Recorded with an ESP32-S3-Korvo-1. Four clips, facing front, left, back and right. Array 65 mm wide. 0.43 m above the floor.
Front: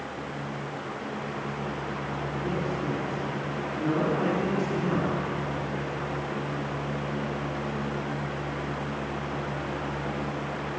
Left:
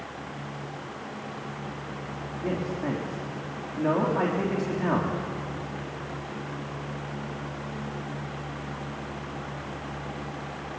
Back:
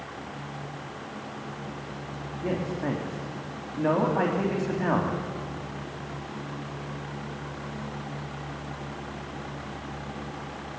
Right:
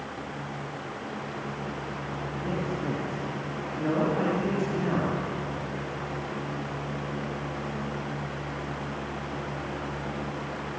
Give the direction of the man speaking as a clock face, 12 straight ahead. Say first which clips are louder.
Left 2 dB, back 3 dB; 7 o'clock.